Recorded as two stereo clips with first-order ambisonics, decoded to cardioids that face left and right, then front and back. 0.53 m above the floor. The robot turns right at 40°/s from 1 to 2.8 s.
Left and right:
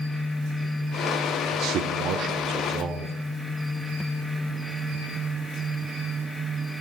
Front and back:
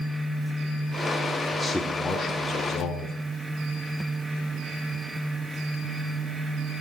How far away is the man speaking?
About 1.0 m.